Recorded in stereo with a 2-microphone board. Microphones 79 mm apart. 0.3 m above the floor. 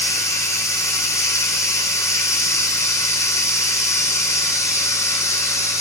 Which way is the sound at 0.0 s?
40° left (ahead or behind).